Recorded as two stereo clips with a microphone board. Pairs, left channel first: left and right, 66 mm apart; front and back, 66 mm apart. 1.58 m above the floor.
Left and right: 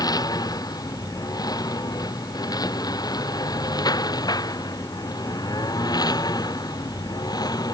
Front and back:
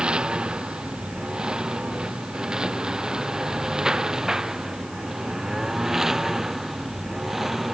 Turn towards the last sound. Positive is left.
turn(degrees=95)